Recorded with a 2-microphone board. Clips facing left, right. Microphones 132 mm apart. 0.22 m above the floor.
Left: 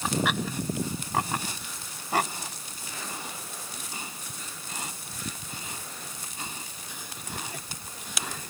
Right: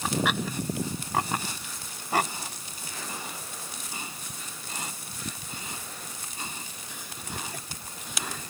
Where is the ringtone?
I don't hear a ringtone.